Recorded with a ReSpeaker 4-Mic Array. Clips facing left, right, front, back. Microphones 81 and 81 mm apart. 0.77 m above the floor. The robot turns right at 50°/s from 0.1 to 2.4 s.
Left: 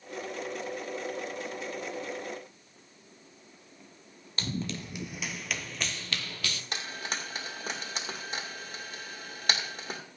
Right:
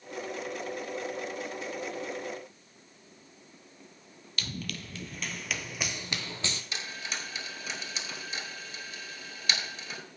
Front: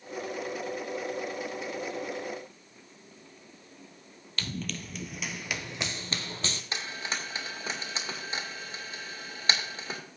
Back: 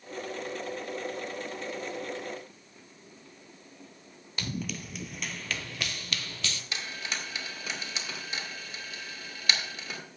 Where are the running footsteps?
120° left, 0.9 m; by 6.6 s 40° right, 1.0 m.